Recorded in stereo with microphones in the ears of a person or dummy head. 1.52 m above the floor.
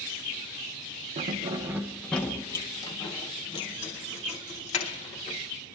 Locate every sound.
1.2 s keys jangling: 35° right (ahead or behind), 0.7 m; by 5.4 s 35° left (ahead or behind), 2.5 m